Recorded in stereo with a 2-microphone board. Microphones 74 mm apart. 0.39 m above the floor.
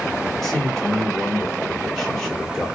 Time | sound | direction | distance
0.4 | a man speaking | 5° left (ahead or behind) | 1.3 m